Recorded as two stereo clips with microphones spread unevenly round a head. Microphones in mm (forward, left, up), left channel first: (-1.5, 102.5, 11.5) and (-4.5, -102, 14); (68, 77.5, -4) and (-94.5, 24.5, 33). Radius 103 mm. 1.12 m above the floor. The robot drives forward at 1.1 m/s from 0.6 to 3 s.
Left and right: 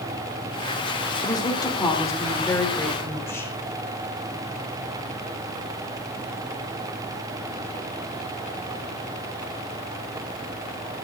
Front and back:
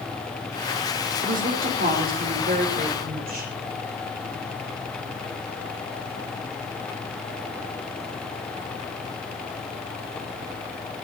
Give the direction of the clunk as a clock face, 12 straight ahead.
I don't hear a clunk.